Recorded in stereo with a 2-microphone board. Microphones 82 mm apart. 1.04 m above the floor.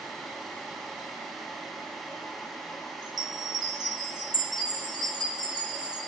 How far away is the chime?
About 3.5 m.